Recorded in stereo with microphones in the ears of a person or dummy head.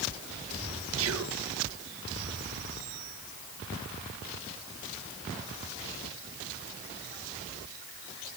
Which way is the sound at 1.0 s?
65° right (ahead or behind).